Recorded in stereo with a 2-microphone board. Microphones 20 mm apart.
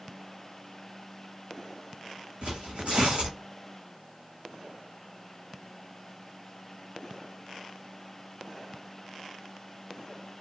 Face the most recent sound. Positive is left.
turn(degrees=-80)